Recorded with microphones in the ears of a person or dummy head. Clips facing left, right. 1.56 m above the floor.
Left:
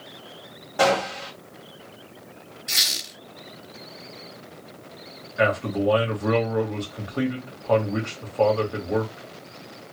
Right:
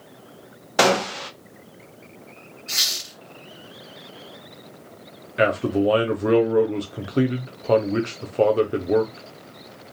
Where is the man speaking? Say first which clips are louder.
Right 3 dB; 35° right (ahead or behind), 0.9 m.